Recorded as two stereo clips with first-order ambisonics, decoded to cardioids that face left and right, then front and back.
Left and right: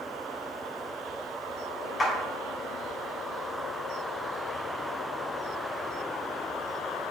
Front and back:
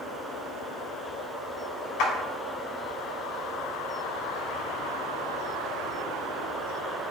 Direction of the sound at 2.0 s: 20° left.